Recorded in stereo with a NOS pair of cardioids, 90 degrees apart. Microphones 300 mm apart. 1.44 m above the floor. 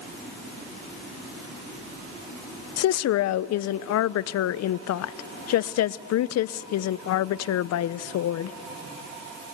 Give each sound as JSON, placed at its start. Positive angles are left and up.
{"t": 2.8, "sound": "a woman speaking", "azimuth_deg": 65, "distance_m": 0.6}